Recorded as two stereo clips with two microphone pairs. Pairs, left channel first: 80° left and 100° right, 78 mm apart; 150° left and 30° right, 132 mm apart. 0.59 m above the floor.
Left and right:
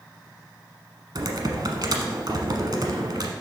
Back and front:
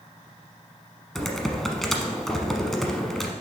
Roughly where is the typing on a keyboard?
Behind right.